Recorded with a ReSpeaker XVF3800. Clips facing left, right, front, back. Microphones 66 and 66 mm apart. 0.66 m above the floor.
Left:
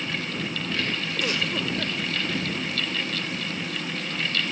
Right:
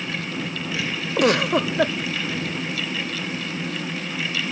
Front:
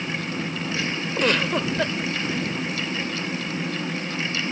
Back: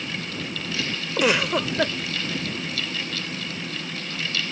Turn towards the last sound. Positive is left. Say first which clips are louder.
# right 12 dB, back 1 dB
turn(degrees=-100)